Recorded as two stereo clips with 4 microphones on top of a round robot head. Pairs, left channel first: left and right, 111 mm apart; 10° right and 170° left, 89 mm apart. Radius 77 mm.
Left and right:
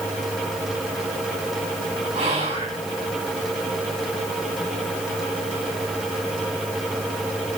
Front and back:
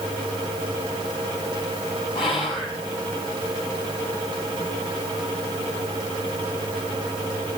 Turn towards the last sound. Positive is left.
turn(degrees=-50)